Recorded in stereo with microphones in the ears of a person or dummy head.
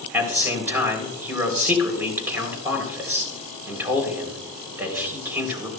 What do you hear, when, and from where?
0.1 s a man speaking: 10° right (ahead or behind), 3.5 m